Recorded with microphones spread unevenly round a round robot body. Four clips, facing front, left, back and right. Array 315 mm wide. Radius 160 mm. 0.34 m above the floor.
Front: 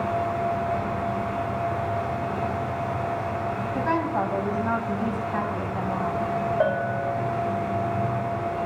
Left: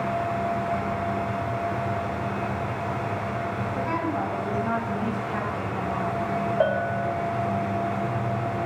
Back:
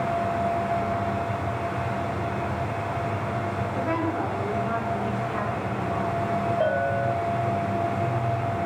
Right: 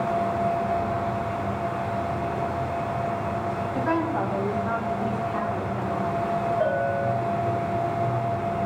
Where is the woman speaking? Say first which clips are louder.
Right 3 dB, front 2 dB; 30° right, 3 m; by 6.3 s 25° left, 3 m.